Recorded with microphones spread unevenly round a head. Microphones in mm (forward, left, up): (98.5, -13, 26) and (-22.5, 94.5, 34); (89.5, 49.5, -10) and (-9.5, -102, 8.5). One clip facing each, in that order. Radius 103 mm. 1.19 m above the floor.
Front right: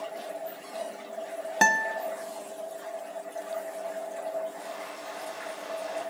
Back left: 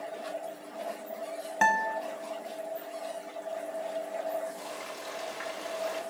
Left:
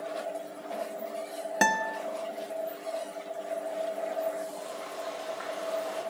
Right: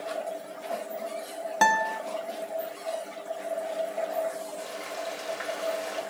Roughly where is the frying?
Behind.